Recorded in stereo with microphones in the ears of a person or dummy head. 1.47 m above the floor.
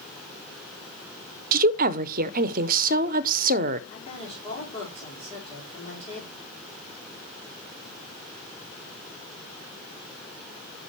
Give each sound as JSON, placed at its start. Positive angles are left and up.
{"t": 1.5, "sound": "a woman speaking", "side_deg": -55, "distance_m": 0.6}
{"t": 3.9, "sound": "a woman speaking", "side_deg": 40, "distance_m": 5.5}